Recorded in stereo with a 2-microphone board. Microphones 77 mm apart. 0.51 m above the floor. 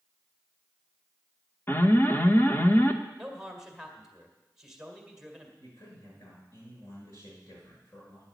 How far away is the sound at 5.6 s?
About 6.5 m.